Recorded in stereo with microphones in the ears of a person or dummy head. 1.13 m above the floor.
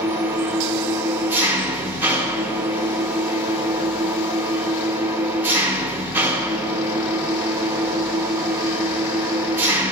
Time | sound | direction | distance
0.0 | an engine running | 10° right (ahead or behind) | 0.8 m